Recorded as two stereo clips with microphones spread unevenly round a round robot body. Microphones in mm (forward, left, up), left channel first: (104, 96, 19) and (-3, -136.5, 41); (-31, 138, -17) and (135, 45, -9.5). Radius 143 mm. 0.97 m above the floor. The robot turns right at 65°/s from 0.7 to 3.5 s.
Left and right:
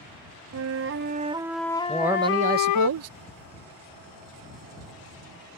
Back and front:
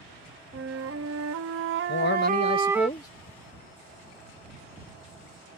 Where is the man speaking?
145° left; by 3.1 s 135° right.